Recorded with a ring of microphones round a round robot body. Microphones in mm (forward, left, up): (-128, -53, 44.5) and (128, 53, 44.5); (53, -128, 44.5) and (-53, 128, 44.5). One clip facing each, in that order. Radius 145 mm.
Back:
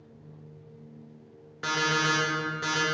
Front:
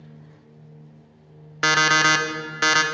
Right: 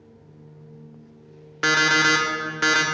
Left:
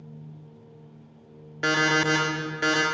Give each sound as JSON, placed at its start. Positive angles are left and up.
{"t": 1.6, "sound": "an alarm clock", "azimuth_deg": 10, "distance_m": 0.5}